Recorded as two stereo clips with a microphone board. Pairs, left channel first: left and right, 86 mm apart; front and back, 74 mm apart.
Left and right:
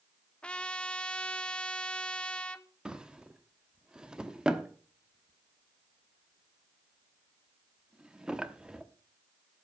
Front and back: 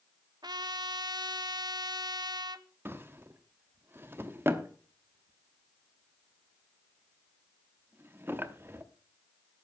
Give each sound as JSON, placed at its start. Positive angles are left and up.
{"t": 0.4, "sound": "a trumpet", "azimuth_deg": 165, "distance_m": 0.7}
{"t": 2.9, "sound": "a drawer", "azimuth_deg": -160, "distance_m": 0.9}